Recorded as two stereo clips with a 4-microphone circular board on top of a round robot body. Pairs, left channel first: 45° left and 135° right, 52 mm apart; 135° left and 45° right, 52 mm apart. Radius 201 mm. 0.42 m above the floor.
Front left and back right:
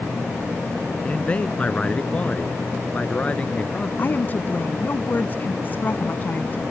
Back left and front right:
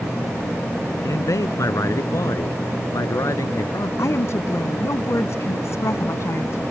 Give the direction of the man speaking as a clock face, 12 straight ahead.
8 o'clock.